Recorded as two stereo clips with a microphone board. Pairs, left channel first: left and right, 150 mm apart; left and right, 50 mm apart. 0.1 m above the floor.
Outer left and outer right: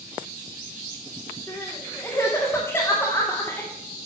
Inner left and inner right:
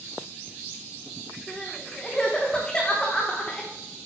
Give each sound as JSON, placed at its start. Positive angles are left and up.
{"t": 1.5, "sound": "crying", "side_deg": 15, "distance_m": 2.5}